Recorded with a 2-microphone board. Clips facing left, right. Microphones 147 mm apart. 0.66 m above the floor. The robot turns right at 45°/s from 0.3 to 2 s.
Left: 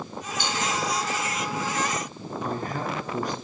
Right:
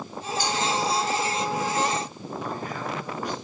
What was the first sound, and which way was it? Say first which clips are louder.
A cowbell: right 3 dB; 25° left (ahead or behind).